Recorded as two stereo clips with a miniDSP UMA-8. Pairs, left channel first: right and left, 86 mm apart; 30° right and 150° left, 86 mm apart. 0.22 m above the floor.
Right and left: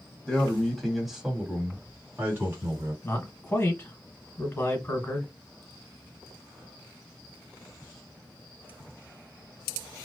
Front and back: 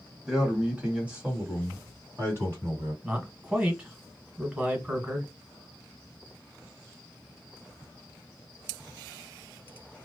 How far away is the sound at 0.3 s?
About 1.5 m.